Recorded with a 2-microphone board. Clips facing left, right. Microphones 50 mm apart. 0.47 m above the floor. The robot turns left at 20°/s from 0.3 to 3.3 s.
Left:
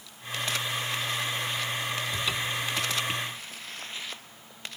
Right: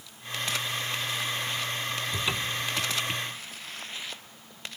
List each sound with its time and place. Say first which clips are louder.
2.1 s a cupboard door: even; 15° right (ahead or behind); by 2.7 s 30° right (ahead or behind)